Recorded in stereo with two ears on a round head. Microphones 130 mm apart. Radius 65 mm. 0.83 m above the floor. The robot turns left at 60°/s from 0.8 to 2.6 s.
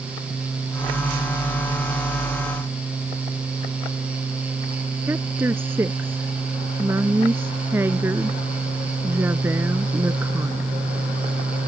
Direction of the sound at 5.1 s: 15° right (ahead or behind).